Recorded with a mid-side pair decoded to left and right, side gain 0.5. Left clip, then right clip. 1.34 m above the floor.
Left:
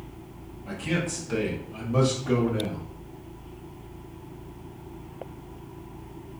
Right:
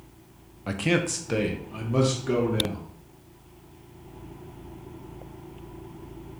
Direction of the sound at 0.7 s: 70° right.